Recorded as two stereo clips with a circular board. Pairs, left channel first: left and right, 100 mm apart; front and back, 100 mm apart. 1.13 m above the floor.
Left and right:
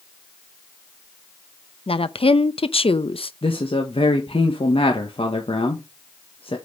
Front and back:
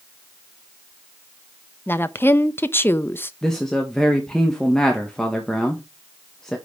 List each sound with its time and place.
1.9 s a woman speaking: 70° left, 0.7 m
3.4 s a man speaking: 85° left, 1.5 m